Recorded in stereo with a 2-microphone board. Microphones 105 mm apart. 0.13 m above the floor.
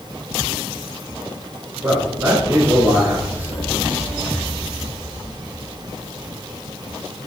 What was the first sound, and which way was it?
A man speaking, 20° right (ahead or behind).